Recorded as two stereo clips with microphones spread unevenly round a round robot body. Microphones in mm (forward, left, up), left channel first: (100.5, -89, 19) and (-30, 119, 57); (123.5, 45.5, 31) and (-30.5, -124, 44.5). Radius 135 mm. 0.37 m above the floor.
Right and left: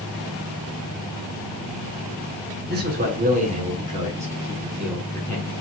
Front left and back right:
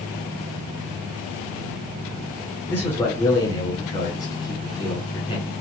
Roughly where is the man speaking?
Behind left.